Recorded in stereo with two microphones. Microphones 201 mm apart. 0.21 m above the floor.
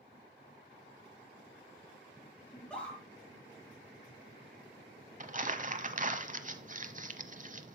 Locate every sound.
2.5 s a scream: 5° left (ahead or behind), 4.5 m
5.2 s crumpling: 40° right (ahead or behind), 0.9 m